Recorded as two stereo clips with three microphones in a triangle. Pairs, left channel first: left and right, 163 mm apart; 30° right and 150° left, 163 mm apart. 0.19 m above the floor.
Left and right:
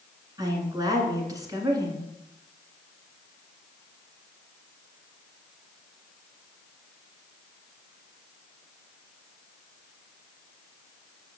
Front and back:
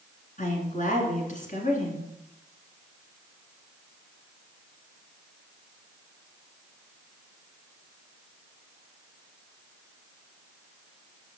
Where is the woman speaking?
30° right, 2.0 m.